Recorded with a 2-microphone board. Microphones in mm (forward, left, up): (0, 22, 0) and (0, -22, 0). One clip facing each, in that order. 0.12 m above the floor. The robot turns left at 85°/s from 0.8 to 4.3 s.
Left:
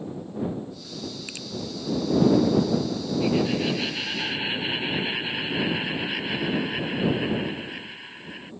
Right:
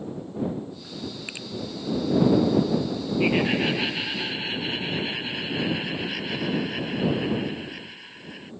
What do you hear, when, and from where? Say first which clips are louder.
1.3 s a finger snap: right 2 dB; 20° right (ahead or behind)
3.2 s laughter: right 2 dB; 100° right; by 8.5 s 165° left